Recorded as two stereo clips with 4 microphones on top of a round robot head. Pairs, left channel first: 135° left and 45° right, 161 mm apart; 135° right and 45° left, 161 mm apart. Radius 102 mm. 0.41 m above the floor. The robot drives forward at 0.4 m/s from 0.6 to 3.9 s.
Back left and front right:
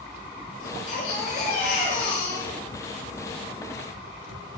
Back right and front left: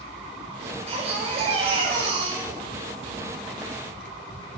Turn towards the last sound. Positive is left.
turn(degrees=105)